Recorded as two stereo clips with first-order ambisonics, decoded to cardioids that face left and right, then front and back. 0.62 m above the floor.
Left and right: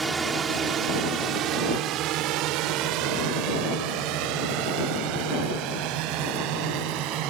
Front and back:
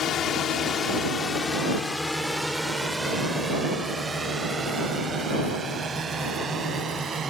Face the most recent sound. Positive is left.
turn(degrees=-110)